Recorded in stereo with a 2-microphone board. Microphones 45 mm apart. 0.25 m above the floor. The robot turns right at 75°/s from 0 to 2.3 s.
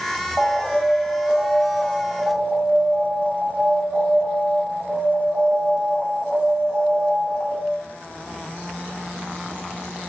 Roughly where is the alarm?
Left.